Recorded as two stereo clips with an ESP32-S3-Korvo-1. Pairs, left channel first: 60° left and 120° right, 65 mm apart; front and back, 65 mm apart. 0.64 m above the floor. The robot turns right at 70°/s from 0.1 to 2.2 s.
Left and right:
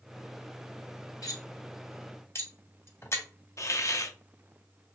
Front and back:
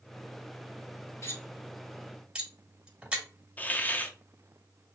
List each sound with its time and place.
1.2 s cutlery clinking: 40° left, 1.6 m; by 3.2 s 105° left, 1.6 m
3.6 s a hiss: 50° left, 0.6 m